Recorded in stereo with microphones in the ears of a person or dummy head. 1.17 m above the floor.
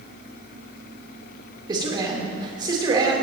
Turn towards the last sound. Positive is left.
turn(degrees=-25)  # may be behind; listen again after turning